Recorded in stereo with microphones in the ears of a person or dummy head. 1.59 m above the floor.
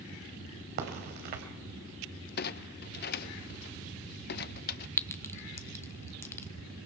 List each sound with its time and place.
0.8 s a crack: 50° right (ahead or behind), 3 m
2.4 s a clunk: 50° left (ahead or behind), 0.7 m
5.0 s a clink: 10° left (ahead or behind), 0.6 m